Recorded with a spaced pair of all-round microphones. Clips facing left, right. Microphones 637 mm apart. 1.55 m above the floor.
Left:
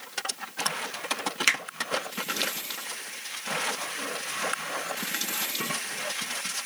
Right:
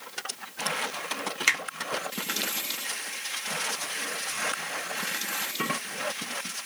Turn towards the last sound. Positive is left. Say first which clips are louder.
# left 1 dB
turn(degrees=40)  # may be behind; listen again after turning